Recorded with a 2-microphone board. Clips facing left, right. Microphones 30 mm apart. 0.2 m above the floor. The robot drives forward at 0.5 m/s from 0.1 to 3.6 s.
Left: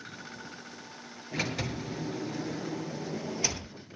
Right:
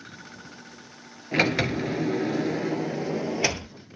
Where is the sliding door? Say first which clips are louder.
Right 10 dB; 65° right (ahead or behind), 0.9 m; by 3.7 s 45° right (ahead or behind), 1.2 m.